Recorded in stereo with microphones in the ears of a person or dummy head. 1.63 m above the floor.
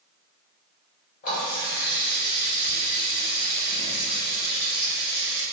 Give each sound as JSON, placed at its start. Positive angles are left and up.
{"t": 1.2, "sound": "a running tap", "side_deg": 30, "distance_m": 0.8}